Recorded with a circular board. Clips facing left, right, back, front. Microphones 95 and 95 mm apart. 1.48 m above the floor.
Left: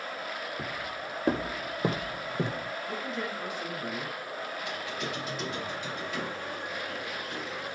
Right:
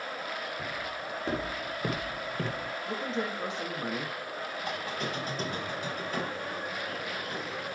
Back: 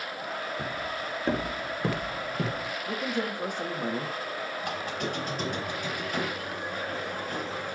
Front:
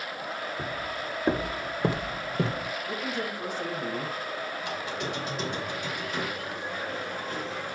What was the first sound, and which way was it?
Footsteps, 80° left.